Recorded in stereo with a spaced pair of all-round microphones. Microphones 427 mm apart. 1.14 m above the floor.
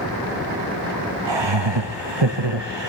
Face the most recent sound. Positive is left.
turn(degrees=-75)  # may be behind; listen again after turning